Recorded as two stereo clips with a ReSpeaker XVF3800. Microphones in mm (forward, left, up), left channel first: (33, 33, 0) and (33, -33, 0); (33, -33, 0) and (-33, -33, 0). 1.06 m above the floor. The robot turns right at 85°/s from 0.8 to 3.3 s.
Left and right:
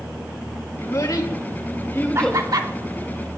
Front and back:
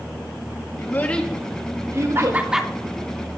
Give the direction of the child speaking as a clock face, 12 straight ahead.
11 o'clock.